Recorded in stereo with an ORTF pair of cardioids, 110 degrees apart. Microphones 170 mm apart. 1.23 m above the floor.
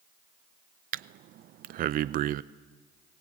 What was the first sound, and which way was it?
Breathing, 55° right.